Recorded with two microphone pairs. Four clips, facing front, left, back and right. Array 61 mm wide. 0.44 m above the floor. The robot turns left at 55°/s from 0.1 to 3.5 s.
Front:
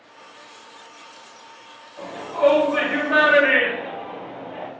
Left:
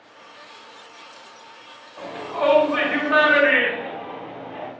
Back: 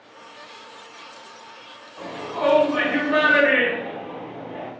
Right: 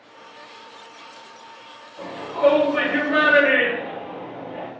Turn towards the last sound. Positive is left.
turn(degrees=25)